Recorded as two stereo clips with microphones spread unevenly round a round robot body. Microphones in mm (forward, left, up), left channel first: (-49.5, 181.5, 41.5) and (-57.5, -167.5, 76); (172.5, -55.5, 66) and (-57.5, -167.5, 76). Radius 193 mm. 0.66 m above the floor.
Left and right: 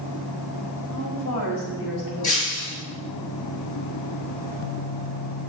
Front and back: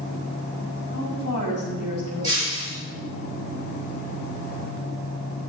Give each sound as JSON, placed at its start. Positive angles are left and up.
{"t": 0.9, "sound": "a woman speaking", "azimuth_deg": 50, "distance_m": 4.0}
{"t": 2.2, "sound": "breaking glass", "azimuth_deg": 100, "distance_m": 5.5}